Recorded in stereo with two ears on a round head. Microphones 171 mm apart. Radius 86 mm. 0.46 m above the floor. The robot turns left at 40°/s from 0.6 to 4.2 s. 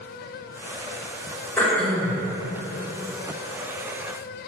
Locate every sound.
1.6 s throat clearing: 15° left (ahead or behind), 1.4 m; by 2.2 s 5° left (ahead or behind), 1.4 m